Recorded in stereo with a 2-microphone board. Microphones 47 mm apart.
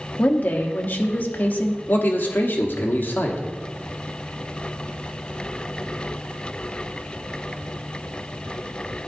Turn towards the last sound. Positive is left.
turn(degrees=45)  # may be behind; listen again after turning